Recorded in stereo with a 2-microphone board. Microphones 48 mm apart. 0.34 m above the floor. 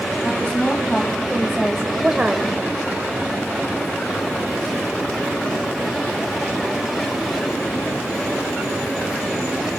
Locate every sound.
0.2 s a woman speaking: 25° left (ahead or behind), 2.5 m; by 2.6 s 35° right (ahead or behind), 1.0 m